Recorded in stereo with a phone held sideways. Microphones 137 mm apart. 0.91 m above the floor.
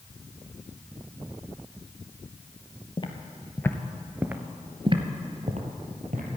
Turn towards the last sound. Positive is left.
turn(degrees=-65)  # may be behind; listen again after turning